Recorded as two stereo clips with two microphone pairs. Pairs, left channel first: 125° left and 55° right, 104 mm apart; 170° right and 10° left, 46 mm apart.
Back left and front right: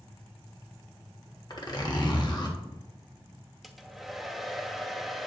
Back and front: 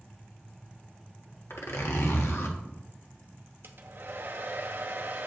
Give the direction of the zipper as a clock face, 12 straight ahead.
6 o'clock.